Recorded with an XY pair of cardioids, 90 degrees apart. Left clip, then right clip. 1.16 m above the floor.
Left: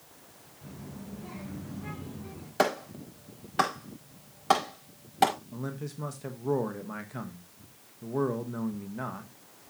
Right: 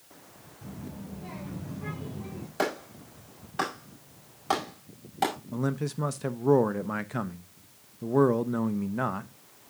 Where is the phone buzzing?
No phone buzzing in this recording.